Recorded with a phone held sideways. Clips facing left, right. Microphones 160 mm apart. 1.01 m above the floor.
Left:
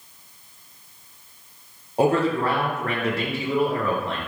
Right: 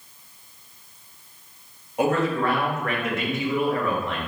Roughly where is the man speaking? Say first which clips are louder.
Left 2 dB; left.